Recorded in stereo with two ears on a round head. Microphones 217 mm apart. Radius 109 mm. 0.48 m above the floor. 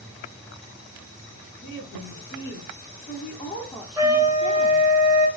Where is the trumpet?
15° right (ahead or behind), 0.9 m.